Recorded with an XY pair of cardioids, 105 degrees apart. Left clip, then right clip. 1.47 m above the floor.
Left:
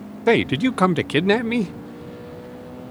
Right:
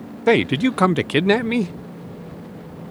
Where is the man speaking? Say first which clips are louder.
Right 1 dB; 5° right.